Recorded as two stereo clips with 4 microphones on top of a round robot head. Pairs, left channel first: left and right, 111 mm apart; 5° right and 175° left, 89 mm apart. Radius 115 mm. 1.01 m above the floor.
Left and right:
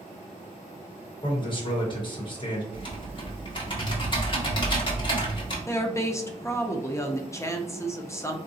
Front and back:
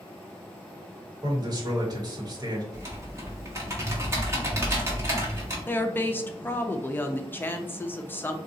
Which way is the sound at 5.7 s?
45° left.